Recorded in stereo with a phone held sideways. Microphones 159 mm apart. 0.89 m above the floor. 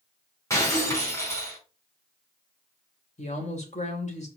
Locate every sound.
0.5 s breaking glass: 20° left (ahead or behind), 4 m
3.2 s a woman speaking: 45° left (ahead or behind), 3 m